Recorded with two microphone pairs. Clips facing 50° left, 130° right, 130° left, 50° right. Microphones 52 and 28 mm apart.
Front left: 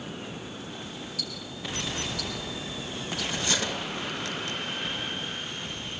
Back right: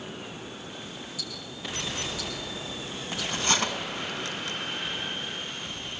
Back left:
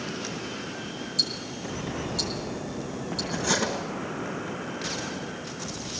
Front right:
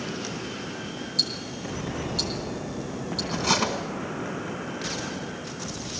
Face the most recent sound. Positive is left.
turn(degrees=-80)